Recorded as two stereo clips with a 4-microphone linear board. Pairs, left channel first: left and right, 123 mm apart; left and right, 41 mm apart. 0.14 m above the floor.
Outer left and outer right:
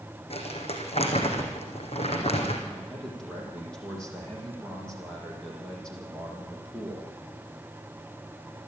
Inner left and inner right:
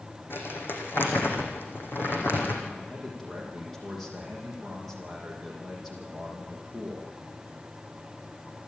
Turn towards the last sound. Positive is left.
turn(degrees=5)  # may be behind; listen again after turning